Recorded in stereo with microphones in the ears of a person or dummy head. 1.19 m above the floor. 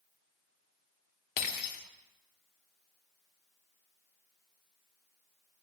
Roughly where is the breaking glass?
Left.